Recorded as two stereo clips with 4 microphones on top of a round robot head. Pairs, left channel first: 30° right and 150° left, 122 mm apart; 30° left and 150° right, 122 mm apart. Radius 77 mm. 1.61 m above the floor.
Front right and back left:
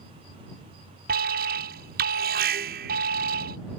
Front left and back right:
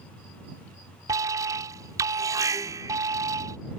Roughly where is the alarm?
Behind left.